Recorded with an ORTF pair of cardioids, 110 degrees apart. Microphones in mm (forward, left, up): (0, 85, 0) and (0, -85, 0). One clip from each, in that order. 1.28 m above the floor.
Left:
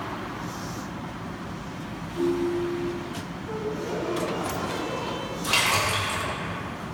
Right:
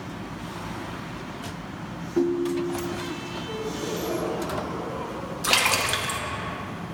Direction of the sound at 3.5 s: 15° left.